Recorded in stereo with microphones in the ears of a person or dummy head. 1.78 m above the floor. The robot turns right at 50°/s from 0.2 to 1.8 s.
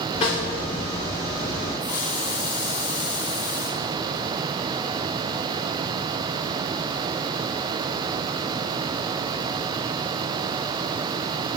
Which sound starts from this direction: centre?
A hiss, at 1.8 s.